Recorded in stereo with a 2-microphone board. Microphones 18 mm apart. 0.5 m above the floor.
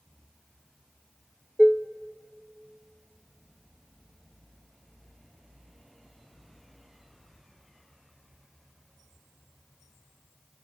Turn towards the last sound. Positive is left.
turn(degrees=60)  # may be behind; listen again after turning